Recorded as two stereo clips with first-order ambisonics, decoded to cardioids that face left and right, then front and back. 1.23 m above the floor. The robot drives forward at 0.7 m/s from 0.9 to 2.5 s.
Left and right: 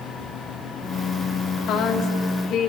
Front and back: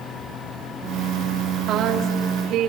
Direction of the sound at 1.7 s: 130° left.